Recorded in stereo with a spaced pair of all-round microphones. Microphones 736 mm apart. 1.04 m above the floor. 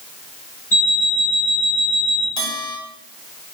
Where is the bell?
55° left (ahead or behind), 1.7 m.